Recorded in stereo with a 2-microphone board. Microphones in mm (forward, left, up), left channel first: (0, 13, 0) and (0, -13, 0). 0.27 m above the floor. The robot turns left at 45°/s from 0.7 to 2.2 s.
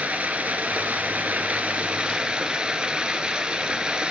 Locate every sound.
0.0 s running water: 70° right, 1.3 m; by 4.1 s 135° right, 1.3 m